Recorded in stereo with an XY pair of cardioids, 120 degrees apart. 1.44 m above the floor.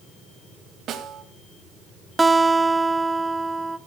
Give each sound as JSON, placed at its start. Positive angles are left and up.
{"t": 0.9, "sound": "a snare drum", "azimuth_deg": -65, "distance_m": 2.5}
{"t": 2.2, "sound": "a guitar", "azimuth_deg": -15, "distance_m": 0.8}